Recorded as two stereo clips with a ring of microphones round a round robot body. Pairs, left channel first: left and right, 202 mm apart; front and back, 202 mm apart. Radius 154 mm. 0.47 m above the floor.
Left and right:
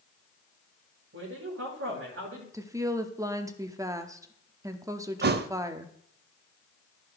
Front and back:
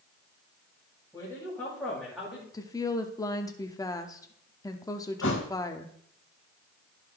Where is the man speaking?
75° right, 3.5 m; by 2.4 s 95° right, 3.5 m.